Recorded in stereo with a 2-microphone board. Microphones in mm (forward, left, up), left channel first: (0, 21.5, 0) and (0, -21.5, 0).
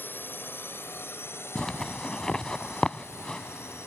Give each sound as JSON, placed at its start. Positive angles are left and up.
{"t": 0.0, "sound": "a drone", "side_deg": 50}
{"t": 1.6, "sound": "a zipper", "side_deg": 15}